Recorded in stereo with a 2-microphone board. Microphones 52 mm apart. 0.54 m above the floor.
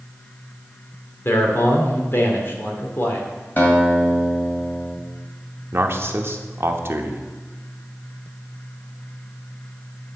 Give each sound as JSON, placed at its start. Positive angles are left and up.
{"t": 1.2, "sound": "a man speaking", "side_deg": 50, "distance_m": 1.7}
{"t": 3.6, "sound": "a guitar", "side_deg": 40, "distance_m": 2.0}
{"t": 5.7, "sound": "a man speaking", "side_deg": -50, "distance_m": 0.9}